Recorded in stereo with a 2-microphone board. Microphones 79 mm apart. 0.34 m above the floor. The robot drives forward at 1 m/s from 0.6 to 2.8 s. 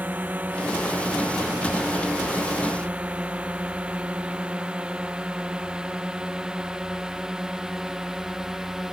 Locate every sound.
0.0 s a drone: 20° right (ahead or behind); by 8.9 s 5° right (ahead or behind)